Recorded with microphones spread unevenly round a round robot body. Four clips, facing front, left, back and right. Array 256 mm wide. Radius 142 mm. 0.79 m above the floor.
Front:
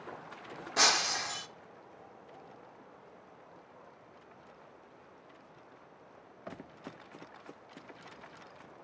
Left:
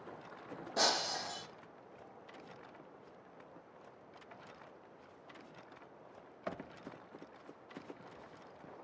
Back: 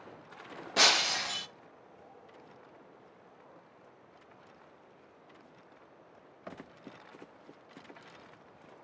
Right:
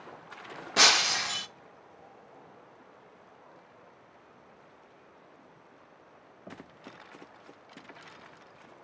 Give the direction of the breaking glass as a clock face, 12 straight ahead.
4 o'clock.